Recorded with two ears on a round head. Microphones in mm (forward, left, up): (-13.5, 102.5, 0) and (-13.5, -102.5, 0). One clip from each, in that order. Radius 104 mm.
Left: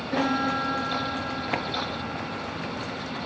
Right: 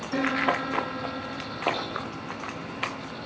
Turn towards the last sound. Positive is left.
turn(degrees=30)  # may be behind; listen again after turning